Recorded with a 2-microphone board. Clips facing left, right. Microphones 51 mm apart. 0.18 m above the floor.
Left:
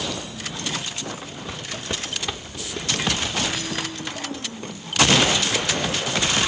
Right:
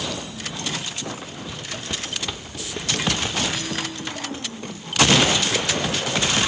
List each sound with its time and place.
1.5 s footsteps: 45° left (ahead or behind), 1.0 m; by 5.0 s 35° right (ahead or behind), 3 m